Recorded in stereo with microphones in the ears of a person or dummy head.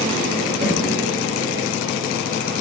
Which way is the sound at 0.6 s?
55° right (ahead or behind).